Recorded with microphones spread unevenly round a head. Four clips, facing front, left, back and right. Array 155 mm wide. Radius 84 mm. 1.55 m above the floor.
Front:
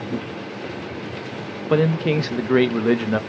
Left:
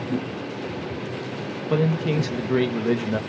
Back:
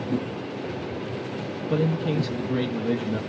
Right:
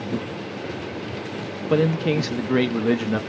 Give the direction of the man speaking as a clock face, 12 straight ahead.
12 o'clock.